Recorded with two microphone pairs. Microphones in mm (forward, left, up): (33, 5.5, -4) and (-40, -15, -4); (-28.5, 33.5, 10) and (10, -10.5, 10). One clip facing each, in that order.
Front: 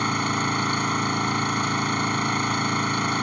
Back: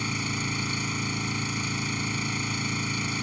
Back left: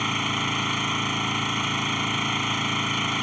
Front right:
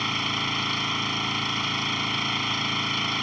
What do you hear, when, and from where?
0.0 s an engine running: 50° left